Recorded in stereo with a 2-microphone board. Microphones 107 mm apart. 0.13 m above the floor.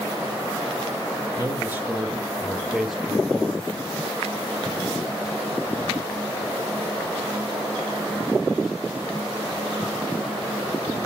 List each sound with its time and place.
1.4 s a man speaking: 25° right (ahead or behind), 1.5 m; by 3.8 s 5° left (ahead or behind), 3 m